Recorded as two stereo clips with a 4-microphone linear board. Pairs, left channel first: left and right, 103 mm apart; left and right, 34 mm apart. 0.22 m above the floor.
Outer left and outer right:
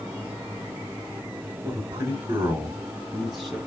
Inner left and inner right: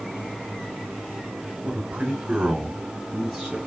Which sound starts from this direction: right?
A man speaking, at 1.6 s.